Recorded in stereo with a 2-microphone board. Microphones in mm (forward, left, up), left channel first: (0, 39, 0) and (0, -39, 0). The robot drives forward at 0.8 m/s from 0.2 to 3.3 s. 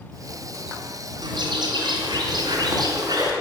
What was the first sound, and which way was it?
A bird, 75° right (ahead or behind).